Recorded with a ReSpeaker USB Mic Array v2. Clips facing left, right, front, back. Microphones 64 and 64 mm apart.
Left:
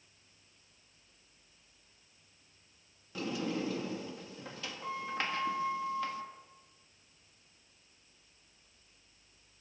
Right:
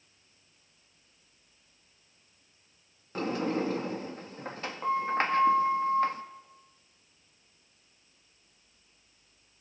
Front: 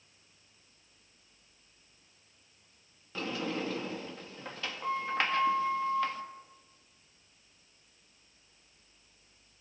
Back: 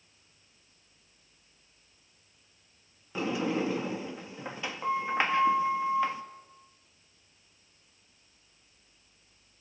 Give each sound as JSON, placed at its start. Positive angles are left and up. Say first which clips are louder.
{"t": 3.1, "sound": "a sliding door", "louder": "right 6 dB, back 5 dB", "azimuth_deg": -110, "distance_m": 1.5}